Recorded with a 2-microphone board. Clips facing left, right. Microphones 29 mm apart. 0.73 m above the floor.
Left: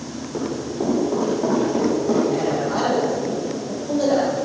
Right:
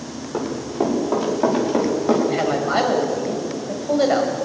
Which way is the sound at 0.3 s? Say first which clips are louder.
Right 2 dB; 50° right (ahead or behind).